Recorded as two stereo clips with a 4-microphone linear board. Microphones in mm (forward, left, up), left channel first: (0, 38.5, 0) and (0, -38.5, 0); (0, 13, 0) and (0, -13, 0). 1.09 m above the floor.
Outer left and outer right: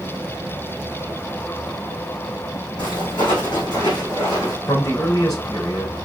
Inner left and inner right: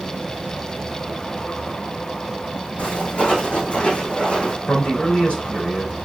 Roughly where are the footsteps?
Left.